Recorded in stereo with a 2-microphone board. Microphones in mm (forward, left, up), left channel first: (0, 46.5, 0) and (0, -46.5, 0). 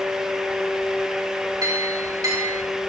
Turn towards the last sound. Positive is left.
turn(degrees=-40)  # may be behind; listen again after turning